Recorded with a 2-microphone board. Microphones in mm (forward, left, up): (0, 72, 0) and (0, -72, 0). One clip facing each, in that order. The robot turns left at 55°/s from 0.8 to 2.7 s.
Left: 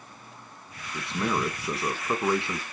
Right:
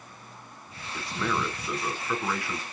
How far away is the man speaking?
About 1.2 m.